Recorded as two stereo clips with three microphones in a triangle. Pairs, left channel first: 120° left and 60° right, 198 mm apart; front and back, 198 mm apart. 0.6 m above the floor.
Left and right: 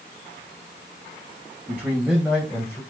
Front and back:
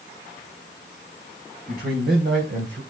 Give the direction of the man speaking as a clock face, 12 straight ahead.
5 o'clock.